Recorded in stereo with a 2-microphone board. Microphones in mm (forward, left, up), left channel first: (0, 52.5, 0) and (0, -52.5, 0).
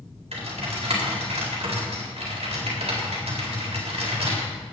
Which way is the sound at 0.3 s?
80° right.